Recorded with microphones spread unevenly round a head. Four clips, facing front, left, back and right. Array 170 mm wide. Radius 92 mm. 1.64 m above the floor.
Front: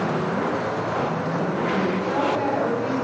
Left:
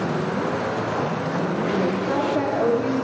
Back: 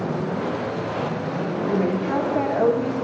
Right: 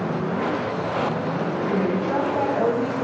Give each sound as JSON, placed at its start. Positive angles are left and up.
{"t": 1.7, "sound": "a woman speaking", "azimuth_deg": -175, "distance_m": 2.5}